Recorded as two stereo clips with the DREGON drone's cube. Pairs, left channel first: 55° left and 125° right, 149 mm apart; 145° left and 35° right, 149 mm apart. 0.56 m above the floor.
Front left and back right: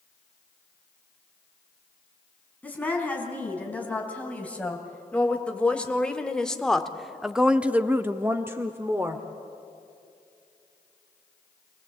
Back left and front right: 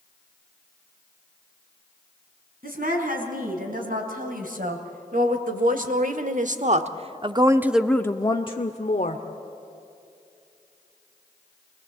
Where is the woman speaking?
25° right, 4 m; by 9.2 s 165° left, 1.2 m.